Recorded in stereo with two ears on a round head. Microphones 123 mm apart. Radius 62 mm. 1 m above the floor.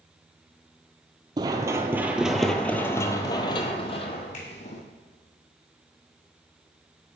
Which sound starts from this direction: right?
Running footsteps, at 1.4 s.